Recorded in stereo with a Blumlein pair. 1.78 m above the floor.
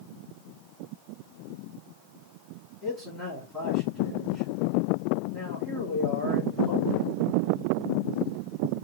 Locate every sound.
2.8 s a man speaking: straight ahead, 3 m